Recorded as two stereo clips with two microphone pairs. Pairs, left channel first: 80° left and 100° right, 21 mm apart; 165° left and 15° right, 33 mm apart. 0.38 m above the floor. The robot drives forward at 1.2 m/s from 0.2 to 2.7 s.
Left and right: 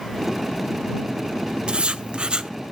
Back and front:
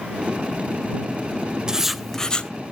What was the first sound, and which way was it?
Writing, 75° right.